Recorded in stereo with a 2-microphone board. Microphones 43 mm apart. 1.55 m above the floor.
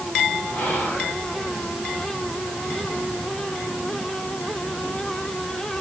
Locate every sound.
0.5 s whispering: 80° left, 4 m